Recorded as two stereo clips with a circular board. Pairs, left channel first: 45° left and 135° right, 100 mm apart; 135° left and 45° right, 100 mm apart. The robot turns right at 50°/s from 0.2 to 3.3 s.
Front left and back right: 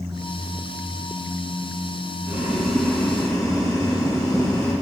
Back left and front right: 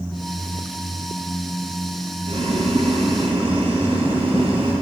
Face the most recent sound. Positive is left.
turn(degrees=-15)